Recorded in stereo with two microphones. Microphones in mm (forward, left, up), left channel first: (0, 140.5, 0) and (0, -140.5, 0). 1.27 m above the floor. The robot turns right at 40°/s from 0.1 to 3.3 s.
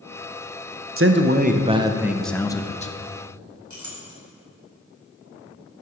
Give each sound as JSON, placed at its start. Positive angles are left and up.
{"t": 1.0, "sound": "a man speaking", "azimuth_deg": -50, "distance_m": 0.6}
{"t": 3.7, "sound": "a clink", "side_deg": -85, "distance_m": 3.5}